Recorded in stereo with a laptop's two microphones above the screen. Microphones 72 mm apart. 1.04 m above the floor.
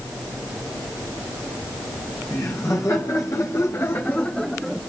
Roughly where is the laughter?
Left.